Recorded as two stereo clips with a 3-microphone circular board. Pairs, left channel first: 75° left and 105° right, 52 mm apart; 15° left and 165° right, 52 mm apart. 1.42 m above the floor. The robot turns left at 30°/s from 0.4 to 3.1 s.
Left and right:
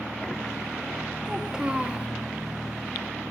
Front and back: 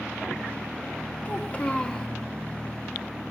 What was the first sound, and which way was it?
A child speaking, 30° right.